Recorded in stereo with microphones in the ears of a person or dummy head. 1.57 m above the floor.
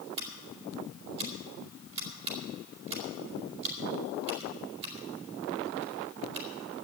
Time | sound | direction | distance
0.2 | scissors | 30° right (ahead or behind) | 3 m